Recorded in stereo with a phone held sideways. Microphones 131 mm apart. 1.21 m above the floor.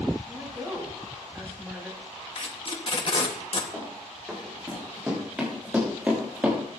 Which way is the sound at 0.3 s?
20° right (ahead or behind).